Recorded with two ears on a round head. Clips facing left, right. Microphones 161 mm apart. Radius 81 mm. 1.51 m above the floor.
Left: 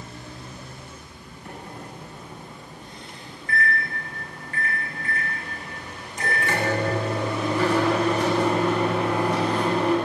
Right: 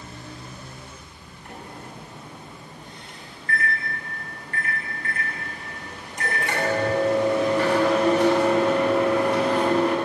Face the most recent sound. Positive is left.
turn(degrees=70)  # may be behind; listen again after turning